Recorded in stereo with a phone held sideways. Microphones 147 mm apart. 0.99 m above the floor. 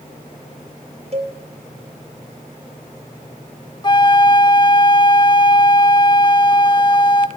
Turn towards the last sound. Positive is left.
turn(degrees=30)  # may be behind; listen again after turning